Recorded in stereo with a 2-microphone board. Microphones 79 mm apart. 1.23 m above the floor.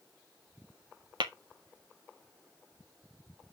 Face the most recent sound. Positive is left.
turn(degrees=-80)